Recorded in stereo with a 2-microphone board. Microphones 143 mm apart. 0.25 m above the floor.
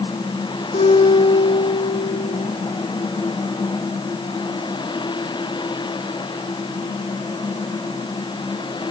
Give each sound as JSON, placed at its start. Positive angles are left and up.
{"t": 0.7, "sound": "a guitar", "side_deg": 85, "distance_m": 9.5}